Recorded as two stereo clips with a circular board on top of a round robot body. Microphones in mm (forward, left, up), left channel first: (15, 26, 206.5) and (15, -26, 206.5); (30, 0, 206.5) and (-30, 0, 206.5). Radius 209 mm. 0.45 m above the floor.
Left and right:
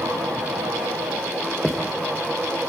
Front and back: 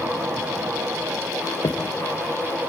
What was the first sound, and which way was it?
Footsteps, 5° left.